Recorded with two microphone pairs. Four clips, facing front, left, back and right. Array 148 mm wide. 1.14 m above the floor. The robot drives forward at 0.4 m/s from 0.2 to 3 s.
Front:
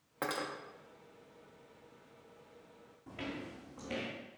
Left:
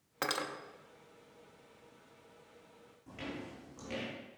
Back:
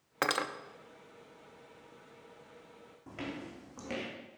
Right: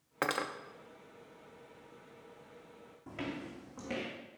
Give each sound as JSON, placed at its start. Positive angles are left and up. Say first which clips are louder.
{"t": 0.2, "sound": "cutlery clinking", "louder": "right 3 dB, back 5 dB", "azimuth_deg": -165, "distance_m": 0.6}
{"t": 3.1, "sound": "footsteps", "louder": "right 3 dB, back 1 dB", "azimuth_deg": -130, "distance_m": 3.5}